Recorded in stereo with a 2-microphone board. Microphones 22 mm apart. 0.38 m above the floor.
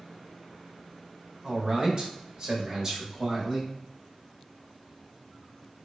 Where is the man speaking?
35° right (ahead or behind), 0.9 m; by 3.7 s 25° right (ahead or behind), 1.6 m.